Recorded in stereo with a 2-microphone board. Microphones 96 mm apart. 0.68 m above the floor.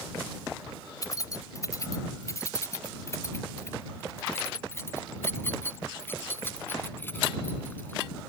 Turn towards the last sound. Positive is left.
turn(degrees=20)  # may be behind; listen again after turning